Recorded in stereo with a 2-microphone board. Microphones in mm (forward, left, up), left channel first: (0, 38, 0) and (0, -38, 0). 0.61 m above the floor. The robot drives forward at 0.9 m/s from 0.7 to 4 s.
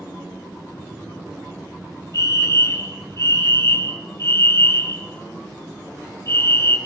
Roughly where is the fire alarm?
Left.